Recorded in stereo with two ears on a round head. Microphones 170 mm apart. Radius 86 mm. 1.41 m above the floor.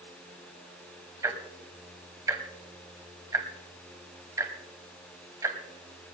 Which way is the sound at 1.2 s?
15° right (ahead or behind).